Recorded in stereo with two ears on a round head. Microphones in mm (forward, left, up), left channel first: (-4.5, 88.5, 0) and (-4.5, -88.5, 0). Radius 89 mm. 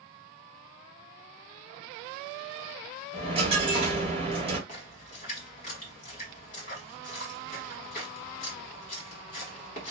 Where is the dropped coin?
25° right (ahead or behind), 1.0 m.